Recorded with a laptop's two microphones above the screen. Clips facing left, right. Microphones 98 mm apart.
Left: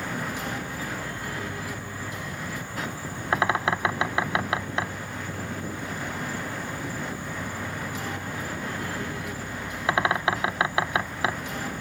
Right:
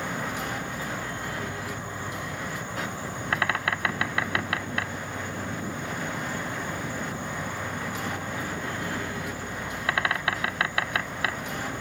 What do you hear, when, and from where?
0.0 s an insect: 20° right (ahead or behind)
3.3 s a bird: 20° left (ahead or behind)